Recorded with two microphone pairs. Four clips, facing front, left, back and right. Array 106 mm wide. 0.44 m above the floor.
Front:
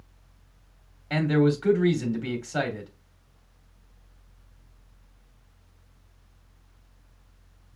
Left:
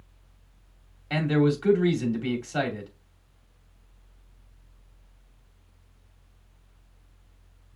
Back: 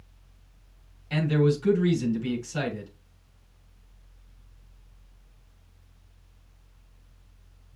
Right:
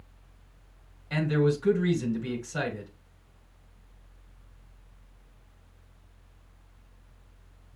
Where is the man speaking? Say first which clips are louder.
Left 2 dB, front 2 dB; 30° left, 2.5 m.